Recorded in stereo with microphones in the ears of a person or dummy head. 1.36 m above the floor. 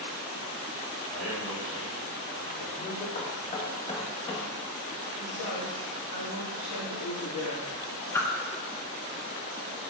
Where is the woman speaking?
45° left (ahead or behind), 3 m.